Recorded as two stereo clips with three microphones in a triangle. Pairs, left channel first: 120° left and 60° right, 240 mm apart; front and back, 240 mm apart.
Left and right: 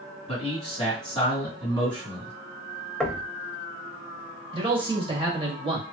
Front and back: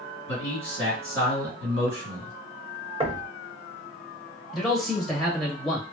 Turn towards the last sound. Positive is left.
turn(degrees=-90)